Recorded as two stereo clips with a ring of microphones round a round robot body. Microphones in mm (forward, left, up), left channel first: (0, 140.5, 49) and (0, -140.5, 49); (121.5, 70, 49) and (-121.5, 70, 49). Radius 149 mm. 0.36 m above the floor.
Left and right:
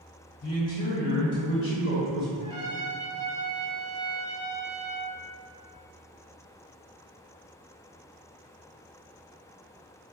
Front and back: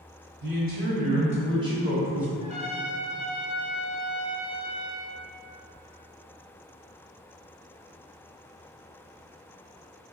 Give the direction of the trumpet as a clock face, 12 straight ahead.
8 o'clock.